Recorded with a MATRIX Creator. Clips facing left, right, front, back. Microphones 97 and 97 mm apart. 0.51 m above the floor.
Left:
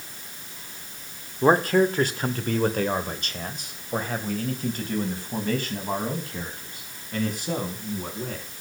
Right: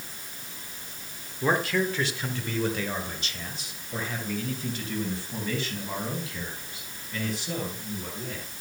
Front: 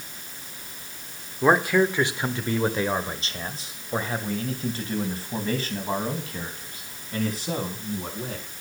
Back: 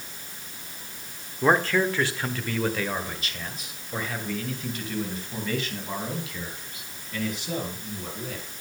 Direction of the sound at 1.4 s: 80° left.